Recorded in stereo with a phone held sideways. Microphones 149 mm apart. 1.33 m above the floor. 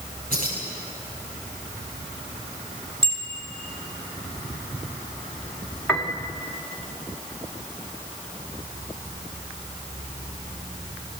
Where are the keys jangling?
75° right (ahead or behind), 9 m.